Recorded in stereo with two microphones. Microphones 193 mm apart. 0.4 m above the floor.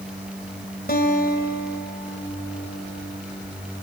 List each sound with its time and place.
0.9 s a guitar: 55° left (ahead or behind), 2 m